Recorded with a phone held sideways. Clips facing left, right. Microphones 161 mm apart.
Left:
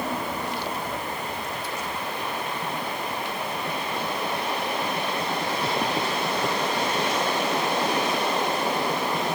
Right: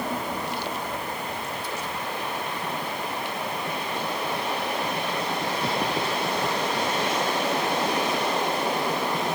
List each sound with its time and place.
Only background noise.